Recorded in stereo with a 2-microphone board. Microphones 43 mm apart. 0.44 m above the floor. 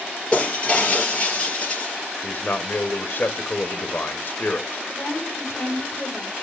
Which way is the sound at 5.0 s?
70° left (ahead or behind).